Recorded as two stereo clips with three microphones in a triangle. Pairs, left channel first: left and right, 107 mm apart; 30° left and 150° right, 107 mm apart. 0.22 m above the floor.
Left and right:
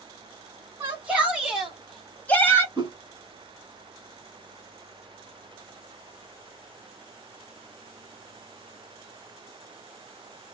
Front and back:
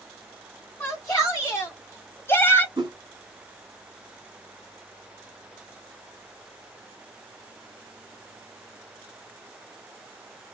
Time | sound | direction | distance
0.8 | a shout | 30° right | 2 m
2.8 | a whoosh | 125° right | 2.5 m